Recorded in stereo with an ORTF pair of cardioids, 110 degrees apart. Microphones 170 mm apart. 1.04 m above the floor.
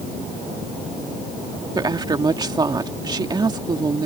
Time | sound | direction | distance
1.8 | a woman speaking | 25° right | ?